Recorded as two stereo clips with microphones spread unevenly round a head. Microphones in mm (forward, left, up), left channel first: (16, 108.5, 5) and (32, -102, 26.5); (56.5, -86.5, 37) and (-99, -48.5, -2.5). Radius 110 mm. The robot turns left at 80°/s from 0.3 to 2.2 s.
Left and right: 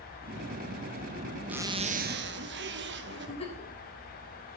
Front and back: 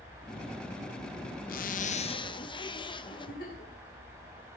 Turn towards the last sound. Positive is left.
turn(degrees=30)